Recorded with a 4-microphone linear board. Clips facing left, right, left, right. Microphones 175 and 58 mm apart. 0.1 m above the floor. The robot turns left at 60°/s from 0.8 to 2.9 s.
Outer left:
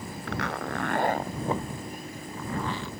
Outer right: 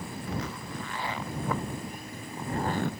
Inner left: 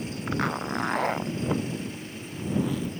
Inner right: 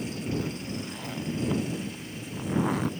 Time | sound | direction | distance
0.3 | a zipper | 70° left (ahead or behind) | ?